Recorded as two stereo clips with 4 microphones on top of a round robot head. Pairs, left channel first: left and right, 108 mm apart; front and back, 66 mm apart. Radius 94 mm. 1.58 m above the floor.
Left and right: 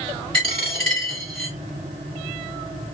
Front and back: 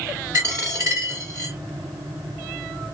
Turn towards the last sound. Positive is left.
turn(degrees=-125)